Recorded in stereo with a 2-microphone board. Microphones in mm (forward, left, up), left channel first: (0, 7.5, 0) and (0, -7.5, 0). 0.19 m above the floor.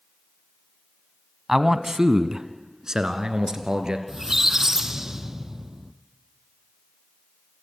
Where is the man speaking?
20° right (ahead or behind), 1.0 m; by 4.0 s 60° right (ahead or behind), 2.5 m.